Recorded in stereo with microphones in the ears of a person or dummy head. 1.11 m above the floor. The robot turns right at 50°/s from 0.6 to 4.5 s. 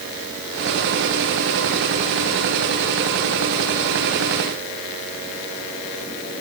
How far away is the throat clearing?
No throat clearing in this recording.